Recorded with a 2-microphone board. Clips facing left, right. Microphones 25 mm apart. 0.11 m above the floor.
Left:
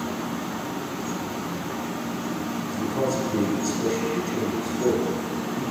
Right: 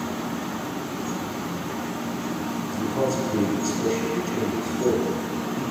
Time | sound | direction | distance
2.7 | a man speaking | 5° right (ahead or behind) | 1.1 m